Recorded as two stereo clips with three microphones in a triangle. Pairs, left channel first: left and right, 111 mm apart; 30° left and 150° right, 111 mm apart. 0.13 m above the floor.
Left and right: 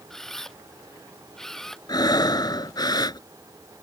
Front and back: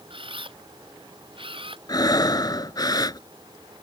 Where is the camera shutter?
175° left.